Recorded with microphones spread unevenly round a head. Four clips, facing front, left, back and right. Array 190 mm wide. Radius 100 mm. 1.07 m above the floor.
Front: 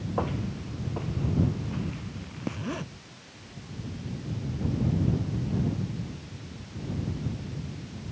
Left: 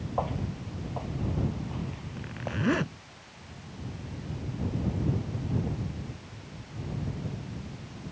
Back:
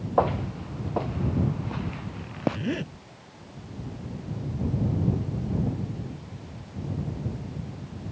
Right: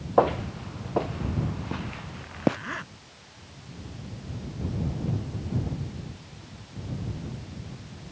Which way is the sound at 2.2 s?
130° left.